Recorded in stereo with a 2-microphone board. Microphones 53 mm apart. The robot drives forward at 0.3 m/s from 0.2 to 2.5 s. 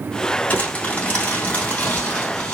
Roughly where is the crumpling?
Left.